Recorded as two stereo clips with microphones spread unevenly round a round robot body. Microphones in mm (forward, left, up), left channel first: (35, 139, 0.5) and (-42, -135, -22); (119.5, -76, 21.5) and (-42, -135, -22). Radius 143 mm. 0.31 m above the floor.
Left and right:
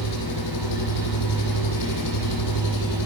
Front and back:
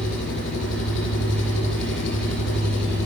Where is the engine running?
55° left, 7.5 m.